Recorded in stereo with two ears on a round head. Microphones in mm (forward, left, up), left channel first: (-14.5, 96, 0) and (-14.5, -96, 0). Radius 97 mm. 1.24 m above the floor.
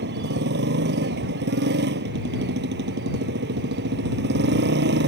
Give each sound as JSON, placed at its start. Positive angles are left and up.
{"t": 0.0, "sound": "a motorcycle", "side_deg": -55}